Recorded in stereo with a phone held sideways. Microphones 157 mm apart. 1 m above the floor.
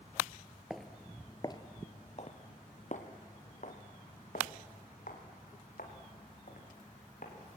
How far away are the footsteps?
About 1.1 m.